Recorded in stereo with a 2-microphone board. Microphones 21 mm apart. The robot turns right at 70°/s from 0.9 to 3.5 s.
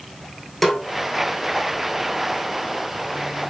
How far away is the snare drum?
About 2.5 m.